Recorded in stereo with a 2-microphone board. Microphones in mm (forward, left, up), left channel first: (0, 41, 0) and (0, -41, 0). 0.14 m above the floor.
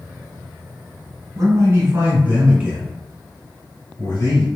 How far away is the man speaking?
About 1.7 m.